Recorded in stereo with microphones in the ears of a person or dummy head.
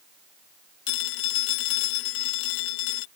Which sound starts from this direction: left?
A phone ringing, at 0.9 s.